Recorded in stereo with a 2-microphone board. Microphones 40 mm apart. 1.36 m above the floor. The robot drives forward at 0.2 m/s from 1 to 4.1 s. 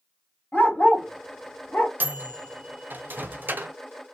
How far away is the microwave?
About 0.5 m.